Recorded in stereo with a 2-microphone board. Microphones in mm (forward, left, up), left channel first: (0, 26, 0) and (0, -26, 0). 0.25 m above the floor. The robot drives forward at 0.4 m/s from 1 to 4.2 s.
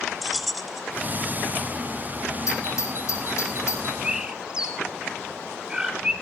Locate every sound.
0.2 s keys jangling: centre (ahead or behind), 0.6 m
2.5 s a doorbell: 65° left (ahead or behind), 5.5 m; by 3.9 s 60° left (ahead or behind), 5.5 m
4.0 s a bird: 15° right (ahead or behind), 1.4 m